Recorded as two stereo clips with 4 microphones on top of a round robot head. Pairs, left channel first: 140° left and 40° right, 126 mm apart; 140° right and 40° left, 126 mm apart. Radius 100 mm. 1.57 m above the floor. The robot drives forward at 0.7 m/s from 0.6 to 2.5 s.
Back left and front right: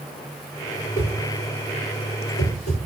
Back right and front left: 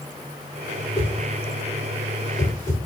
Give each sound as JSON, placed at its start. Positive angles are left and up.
{"t": 1.0, "sound": "a whoosh", "azimuth_deg": 155, "distance_m": 4.5}